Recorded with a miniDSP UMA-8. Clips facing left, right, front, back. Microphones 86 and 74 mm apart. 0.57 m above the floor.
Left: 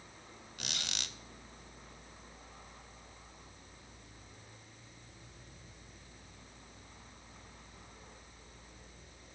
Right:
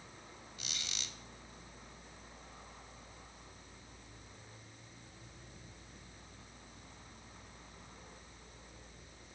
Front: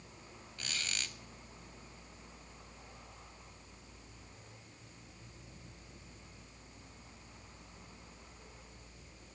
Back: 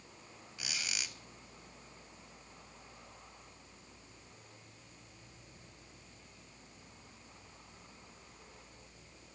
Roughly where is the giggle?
I don't hear a giggle.